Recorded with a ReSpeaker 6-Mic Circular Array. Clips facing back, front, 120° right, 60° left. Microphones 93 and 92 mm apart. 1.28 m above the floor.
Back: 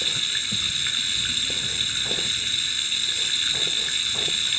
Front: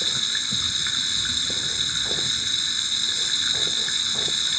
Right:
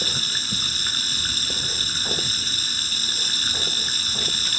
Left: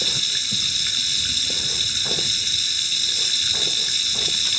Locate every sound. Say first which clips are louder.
0.0 s running water: front 1 dB, right 2 dB; 70° right